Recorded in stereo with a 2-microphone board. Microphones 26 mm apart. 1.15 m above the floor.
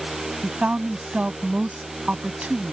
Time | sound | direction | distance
0.4 | a woman speaking | 65° right (ahead or behind) | ?